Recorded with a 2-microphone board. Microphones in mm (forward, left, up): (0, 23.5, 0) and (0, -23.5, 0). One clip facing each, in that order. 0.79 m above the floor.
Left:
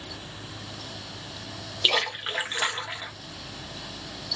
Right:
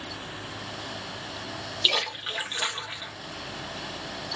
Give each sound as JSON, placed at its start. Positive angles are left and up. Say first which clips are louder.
{"t": 1.8, "sound": "a splash", "louder": "left 2 dB", "side_deg": 20, "distance_m": 1.0}